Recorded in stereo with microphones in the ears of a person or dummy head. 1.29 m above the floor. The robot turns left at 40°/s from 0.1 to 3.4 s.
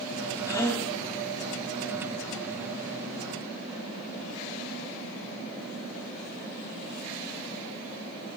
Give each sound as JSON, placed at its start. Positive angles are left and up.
{"t": 0.5, "sound": "a gasp", "side_deg": 20, "distance_m": 1.1}